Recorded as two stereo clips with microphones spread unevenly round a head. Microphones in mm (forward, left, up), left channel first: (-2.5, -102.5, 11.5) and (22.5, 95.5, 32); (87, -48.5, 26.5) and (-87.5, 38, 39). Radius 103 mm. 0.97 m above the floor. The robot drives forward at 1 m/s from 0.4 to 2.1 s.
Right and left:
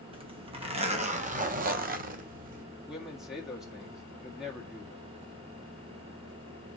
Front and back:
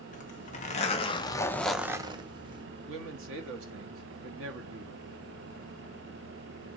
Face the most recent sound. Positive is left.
turn(degrees=170)